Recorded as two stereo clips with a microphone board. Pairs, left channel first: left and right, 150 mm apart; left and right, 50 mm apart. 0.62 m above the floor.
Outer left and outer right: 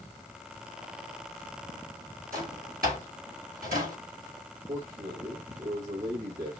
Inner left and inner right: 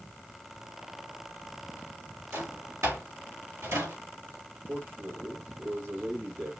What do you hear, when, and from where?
2.3 s a drawer: 80° right, 4.5 m
4.7 s a man speaking: 65° right (ahead or behind), 2 m